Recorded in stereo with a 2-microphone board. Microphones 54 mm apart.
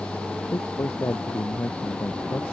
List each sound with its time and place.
0.5 s a man speaking: 65° left (ahead or behind)